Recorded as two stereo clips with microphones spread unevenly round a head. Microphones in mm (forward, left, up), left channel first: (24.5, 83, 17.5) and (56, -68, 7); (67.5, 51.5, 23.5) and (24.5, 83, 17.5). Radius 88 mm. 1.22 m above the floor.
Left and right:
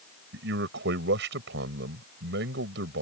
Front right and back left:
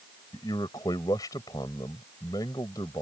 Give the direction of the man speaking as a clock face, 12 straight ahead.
3 o'clock.